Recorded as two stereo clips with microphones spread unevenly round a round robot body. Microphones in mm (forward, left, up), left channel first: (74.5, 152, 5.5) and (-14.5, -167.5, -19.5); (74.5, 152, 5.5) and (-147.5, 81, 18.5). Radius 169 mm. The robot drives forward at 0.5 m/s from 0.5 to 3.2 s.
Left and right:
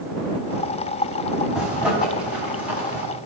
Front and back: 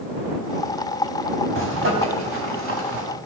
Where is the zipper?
165° left, 3.5 m; by 3.0 s 170° left, 4.5 m.